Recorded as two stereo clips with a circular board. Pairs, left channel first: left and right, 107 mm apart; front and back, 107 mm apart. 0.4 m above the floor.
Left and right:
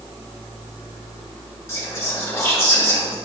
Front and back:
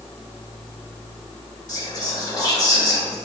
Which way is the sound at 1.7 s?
40° left.